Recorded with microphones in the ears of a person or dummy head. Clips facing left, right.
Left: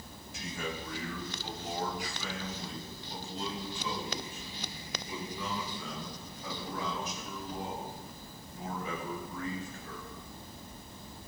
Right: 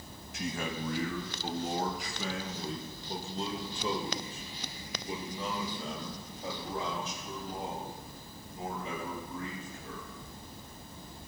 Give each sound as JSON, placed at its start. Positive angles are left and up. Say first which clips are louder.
{"t": 0.3, "sound": "a man speaking", "louder": "right 3 dB", "side_deg": -55, "distance_m": 2.0}